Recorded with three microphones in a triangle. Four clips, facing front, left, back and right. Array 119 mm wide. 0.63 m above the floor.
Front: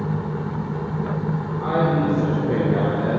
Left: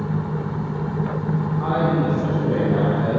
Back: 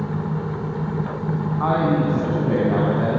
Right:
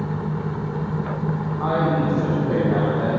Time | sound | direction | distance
1.6 | a man speaking | 170° right | 7 m